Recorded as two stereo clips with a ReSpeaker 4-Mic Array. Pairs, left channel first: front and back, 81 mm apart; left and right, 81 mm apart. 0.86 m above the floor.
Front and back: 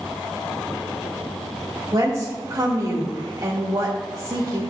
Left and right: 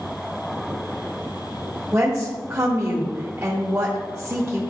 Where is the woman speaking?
145° right, 1.6 m.